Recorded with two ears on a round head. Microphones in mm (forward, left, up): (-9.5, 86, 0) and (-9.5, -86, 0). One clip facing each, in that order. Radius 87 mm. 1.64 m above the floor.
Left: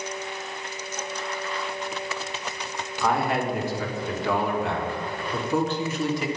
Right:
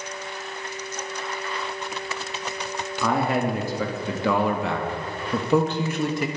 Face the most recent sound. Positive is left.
turn(degrees=-45)  # may be behind; listen again after turning